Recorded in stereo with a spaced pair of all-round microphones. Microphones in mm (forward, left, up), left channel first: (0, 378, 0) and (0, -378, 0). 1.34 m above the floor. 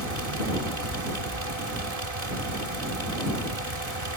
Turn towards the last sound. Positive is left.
turn(degrees=-50)  # may be behind; listen again after turning